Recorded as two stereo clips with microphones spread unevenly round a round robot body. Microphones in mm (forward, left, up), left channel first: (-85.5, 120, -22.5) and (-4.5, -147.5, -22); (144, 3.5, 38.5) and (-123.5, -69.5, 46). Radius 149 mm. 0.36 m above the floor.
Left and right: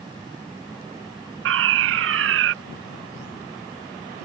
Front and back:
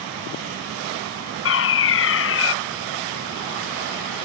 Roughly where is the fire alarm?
Ahead right.